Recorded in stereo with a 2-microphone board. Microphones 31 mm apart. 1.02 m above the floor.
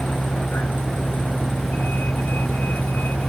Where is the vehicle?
85° left; by 3.3 s 75° left (ahead or behind).